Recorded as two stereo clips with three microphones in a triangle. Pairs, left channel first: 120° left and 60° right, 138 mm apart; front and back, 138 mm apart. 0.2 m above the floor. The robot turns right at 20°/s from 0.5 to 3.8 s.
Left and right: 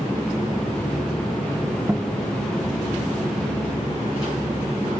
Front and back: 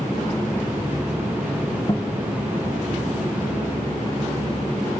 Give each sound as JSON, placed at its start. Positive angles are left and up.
{"t": 1.9, "sound": "a guitar", "azimuth_deg": 15, "distance_m": 1.5}